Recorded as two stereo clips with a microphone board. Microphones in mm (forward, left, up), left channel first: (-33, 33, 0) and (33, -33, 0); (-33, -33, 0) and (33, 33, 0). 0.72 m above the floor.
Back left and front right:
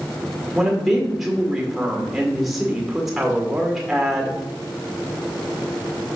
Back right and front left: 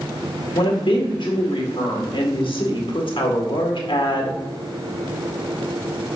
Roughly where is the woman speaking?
Behind right.